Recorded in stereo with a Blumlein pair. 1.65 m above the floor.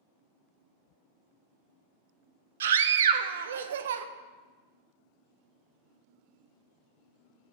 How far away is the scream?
About 0.7 m.